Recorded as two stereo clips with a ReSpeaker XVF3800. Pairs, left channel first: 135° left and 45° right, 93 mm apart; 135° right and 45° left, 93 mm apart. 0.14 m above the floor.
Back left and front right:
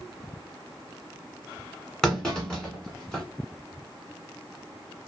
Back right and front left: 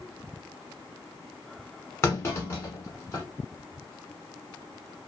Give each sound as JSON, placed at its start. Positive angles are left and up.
{"t": 2.0, "sound": "a clunk", "azimuth_deg": -150, "distance_m": 1.3}